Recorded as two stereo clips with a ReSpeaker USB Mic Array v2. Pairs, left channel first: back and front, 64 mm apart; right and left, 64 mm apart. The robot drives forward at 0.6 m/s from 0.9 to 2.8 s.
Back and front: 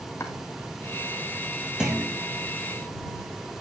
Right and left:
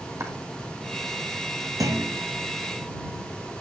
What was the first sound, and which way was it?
Chopping, 130° left.